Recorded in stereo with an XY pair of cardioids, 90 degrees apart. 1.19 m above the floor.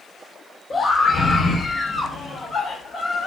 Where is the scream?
45° left, 3.5 m; by 3.3 s 70° left, 4.5 m.